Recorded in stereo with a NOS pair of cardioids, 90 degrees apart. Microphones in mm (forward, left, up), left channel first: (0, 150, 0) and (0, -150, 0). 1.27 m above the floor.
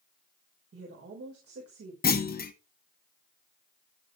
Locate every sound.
0.7 s a woman speaking: 50° right, 5 m
2.0 s a clunk: 30° left, 2 m